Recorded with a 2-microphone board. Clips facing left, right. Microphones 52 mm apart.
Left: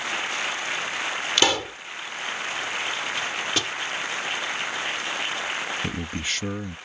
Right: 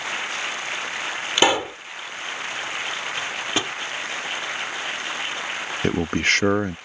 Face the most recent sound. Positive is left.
turn(degrees=-60)  # may be behind; listen again after turning